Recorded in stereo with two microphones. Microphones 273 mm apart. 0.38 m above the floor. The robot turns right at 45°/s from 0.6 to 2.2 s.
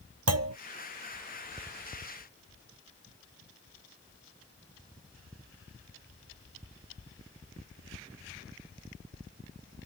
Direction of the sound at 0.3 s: 65° right (ahead or behind).